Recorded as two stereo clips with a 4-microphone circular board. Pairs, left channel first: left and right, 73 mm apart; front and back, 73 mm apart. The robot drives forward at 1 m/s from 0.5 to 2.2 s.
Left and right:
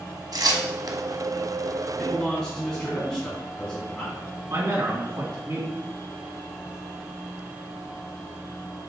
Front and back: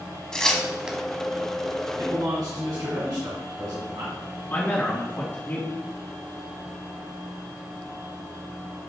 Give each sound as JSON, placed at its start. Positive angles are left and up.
{"t": 0.3, "sound": "tearing paper", "azimuth_deg": -80, "distance_m": 1.0}
{"t": 2.0, "sound": "a man speaking", "azimuth_deg": 170, "distance_m": 2.0}
{"t": 4.5, "sound": "a man speaking", "azimuth_deg": -55, "distance_m": 2.5}